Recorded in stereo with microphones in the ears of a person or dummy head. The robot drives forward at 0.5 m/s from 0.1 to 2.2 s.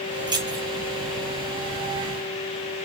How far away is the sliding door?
No sliding door in this recording.